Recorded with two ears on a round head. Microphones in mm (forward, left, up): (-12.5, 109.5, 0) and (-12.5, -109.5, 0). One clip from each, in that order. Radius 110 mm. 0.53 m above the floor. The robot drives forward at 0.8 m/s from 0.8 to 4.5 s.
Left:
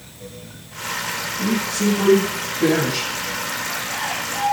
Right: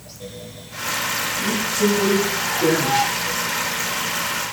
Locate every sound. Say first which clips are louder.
1.4 s a woman speaking: right 1 dB; 40° left (ahead or behind), 6.5 m; by 3.2 s 50° left (ahead or behind), 5.5 m